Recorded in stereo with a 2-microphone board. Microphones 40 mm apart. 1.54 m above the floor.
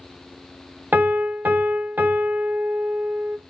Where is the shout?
No shout in this recording.